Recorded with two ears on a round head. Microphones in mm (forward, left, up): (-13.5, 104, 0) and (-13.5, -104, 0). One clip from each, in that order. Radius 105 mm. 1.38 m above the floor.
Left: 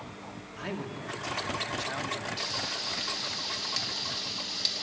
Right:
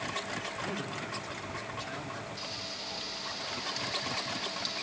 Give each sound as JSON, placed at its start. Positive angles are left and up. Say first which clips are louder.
{"t": 0.6, "sound": "a man speaking", "louder": "right 1 dB", "side_deg": 20, "distance_m": 2.5}
{"t": 2.4, "sound": "frying", "louder": "left 6 dB", "side_deg": 25, "distance_m": 2.0}